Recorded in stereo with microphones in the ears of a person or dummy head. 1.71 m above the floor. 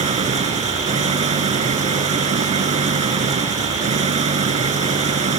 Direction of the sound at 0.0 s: 30° right (ahead or behind).